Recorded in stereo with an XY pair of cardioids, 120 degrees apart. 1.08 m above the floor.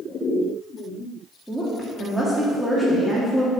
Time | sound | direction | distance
1.5 | a woman speaking | 5° right | 1.8 m